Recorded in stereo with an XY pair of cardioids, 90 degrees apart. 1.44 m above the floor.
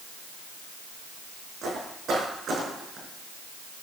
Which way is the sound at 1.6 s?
70° right.